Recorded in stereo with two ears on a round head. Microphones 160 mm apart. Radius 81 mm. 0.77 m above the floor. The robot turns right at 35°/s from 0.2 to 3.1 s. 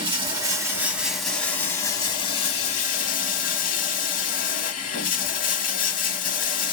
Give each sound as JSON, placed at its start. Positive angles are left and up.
{"t": 0.0, "sound": "running water", "azimuth_deg": -35, "distance_m": 0.8}